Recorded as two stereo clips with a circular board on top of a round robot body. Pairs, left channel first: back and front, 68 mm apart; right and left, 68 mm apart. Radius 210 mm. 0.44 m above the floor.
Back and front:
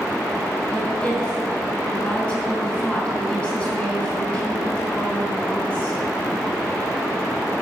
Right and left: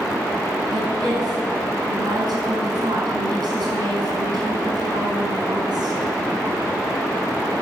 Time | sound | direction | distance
0.7 | a woman speaking | 105° left | 6 m